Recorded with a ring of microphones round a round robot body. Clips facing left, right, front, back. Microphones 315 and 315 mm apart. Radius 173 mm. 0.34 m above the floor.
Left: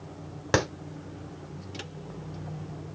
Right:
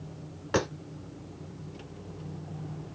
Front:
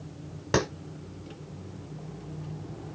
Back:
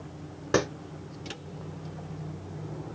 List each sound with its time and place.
0.5 s a clap: 80° left, 2.5 m